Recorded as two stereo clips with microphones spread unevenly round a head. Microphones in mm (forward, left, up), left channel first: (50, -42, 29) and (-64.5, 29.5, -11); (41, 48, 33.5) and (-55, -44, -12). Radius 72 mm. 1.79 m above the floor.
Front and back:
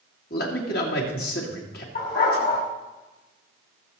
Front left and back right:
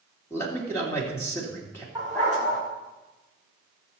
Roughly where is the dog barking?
Ahead right.